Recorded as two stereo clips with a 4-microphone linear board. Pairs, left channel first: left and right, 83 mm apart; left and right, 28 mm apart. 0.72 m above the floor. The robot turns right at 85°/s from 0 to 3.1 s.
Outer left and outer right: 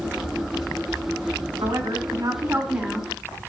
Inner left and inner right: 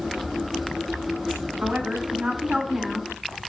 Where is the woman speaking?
115° right, 2.5 m; by 3.1 s 10° left, 2.5 m.